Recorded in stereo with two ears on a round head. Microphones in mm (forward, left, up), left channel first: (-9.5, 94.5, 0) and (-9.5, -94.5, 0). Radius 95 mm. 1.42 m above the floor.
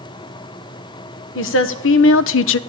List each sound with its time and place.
1.4 s a woman speaking: 65° left (ahead or behind), 1.2 m